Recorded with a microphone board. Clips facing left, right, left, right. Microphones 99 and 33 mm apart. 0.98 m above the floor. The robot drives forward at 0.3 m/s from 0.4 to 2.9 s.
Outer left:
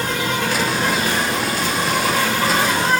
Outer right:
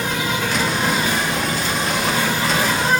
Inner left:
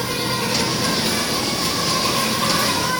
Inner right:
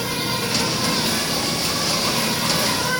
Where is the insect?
60° left (ahead or behind), 3.5 m; by 3.0 s 70° left (ahead or behind), 3.5 m.